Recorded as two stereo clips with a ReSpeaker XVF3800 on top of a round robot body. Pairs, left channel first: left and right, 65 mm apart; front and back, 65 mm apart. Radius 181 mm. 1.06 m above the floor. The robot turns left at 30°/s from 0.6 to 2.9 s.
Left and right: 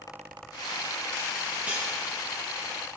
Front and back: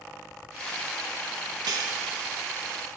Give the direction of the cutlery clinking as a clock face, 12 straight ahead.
5 o'clock.